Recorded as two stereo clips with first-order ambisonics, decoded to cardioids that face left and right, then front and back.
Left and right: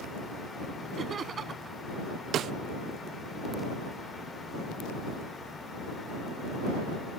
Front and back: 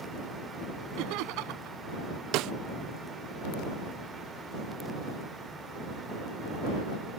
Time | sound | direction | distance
1.0 | laughter | 155° right | ?
2.3 | a snare drum | 145° right | ?